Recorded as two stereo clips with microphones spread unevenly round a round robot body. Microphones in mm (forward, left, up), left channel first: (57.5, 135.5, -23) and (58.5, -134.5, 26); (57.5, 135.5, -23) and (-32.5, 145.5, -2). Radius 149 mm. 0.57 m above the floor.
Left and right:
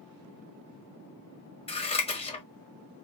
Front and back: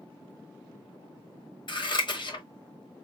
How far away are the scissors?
About 1.5 m.